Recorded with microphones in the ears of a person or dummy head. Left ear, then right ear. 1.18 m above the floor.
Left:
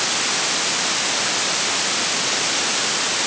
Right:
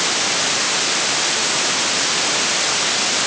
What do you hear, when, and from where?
Only background noise.